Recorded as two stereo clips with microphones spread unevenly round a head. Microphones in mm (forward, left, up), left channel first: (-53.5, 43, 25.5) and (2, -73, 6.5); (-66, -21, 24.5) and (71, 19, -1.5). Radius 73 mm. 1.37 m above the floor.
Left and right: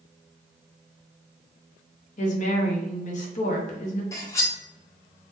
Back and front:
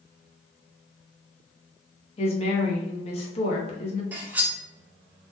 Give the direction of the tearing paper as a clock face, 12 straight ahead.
No tearing paper in this recording.